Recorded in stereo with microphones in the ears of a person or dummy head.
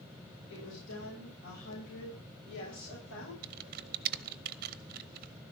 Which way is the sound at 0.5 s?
80° left.